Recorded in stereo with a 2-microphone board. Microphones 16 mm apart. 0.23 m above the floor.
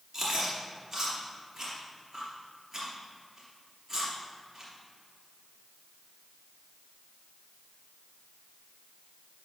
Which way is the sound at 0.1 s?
15° right (ahead or behind).